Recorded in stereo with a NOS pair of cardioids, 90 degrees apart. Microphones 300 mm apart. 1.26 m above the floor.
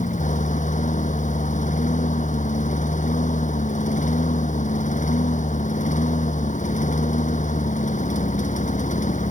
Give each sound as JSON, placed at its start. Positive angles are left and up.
{"t": 0.0, "sound": "a lawn mower", "azimuth_deg": 25}